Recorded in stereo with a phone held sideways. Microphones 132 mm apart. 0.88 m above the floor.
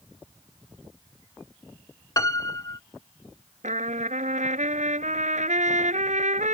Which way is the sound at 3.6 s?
80° right.